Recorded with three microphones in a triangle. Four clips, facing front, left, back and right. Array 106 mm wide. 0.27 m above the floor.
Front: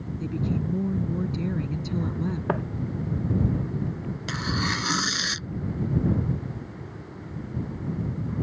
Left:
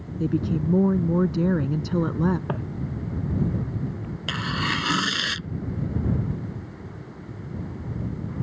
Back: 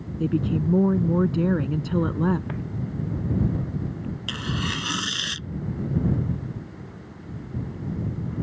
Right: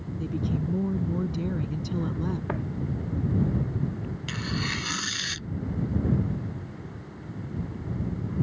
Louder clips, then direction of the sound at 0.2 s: Left 6 dB, back 6 dB; 135° left.